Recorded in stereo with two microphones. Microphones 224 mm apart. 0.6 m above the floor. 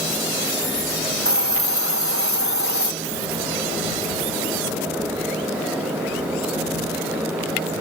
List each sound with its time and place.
1.2 s a hiss: 80° left